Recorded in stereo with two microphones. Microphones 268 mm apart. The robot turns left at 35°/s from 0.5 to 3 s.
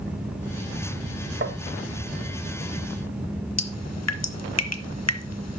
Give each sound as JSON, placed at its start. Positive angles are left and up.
{"t": 1.4, "sound": "tapping", "side_deg": -45, "distance_m": 0.8}
{"t": 3.6, "sound": "dripping", "side_deg": 70, "distance_m": 0.6}